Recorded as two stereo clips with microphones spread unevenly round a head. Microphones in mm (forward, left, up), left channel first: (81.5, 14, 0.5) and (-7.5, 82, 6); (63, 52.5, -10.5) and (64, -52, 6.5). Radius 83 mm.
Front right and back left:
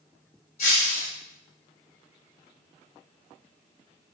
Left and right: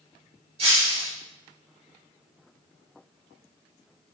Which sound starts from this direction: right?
Breaking glass, at 0.6 s.